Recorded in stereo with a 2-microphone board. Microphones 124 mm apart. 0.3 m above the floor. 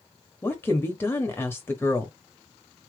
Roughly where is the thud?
No thud in this recording.